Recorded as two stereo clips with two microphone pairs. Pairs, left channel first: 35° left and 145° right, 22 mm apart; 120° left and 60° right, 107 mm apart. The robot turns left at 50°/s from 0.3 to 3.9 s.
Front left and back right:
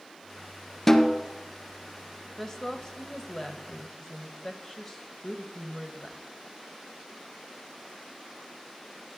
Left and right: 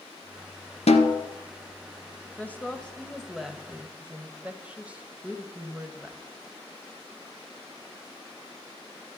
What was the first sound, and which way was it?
A snare drum, 110° left.